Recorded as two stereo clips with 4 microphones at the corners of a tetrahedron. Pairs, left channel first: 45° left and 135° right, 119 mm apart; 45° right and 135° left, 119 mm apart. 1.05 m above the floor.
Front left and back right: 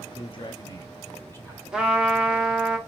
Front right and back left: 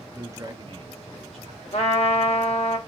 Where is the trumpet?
50° right, 0.9 m.